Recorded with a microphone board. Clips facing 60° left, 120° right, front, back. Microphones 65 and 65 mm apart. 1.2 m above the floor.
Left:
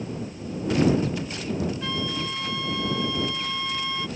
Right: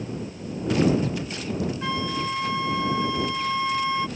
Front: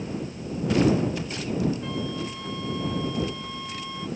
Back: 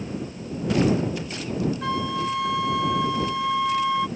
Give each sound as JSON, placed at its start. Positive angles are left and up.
{"t": 1.8, "sound": "a flute", "azimuth_deg": 170}